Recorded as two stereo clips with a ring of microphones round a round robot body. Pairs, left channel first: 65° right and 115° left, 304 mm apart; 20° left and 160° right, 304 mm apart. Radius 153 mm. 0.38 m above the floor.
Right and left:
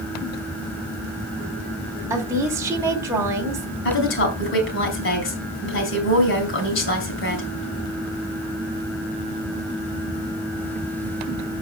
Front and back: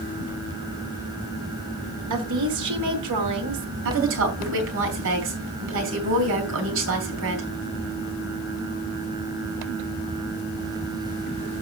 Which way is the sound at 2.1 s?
170° right.